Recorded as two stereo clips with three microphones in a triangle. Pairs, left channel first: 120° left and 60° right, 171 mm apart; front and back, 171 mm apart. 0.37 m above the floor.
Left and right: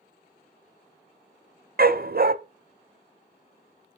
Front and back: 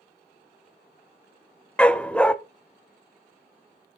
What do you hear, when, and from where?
1.8 s a dog barking: 85° right, 0.7 m